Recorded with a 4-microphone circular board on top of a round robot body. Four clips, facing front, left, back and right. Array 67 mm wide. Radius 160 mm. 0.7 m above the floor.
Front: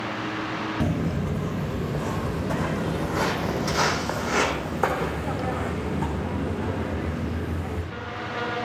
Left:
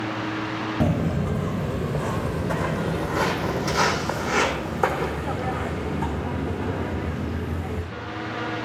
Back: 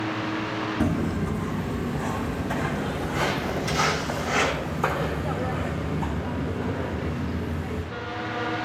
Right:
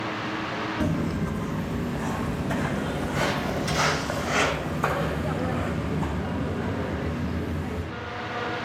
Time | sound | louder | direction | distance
0.8 | footsteps | left 4 dB, back 2 dB | 75° left | 1.4 m